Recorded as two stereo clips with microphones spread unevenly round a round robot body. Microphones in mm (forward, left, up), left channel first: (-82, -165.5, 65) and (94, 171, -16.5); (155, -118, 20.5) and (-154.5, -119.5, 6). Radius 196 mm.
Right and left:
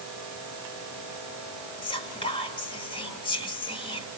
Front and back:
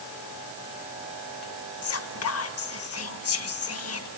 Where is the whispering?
35° right, 1.3 m.